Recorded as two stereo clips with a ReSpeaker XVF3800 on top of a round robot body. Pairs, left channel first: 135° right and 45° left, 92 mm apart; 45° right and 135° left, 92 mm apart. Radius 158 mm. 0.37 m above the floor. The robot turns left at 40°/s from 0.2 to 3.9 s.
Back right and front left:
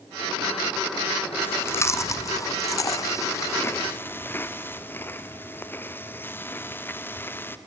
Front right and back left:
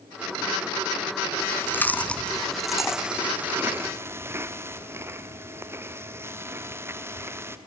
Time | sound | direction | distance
1.4 | chewing | 85° right | 1.3 m